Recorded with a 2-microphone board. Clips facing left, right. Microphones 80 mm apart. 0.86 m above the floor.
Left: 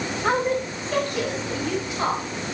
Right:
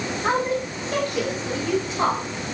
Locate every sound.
0.2 s a woman speaking: 20° right (ahead or behind), 1.4 m; by 2.2 s 25° right (ahead or behind), 4 m